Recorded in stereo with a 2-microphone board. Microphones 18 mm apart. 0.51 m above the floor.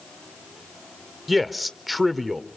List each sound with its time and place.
1.3 s a man speaking: centre (ahead or behind), 1.2 m